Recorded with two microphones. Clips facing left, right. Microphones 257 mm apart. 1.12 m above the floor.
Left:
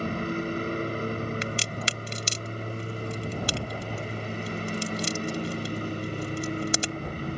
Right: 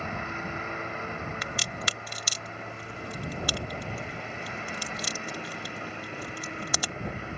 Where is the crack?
25° left (ahead or behind).